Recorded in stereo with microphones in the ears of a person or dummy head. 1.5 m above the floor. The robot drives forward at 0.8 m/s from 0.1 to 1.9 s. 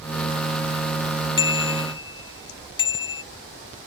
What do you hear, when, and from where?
1.4 s a bicycle bell: 25° left (ahead or behind)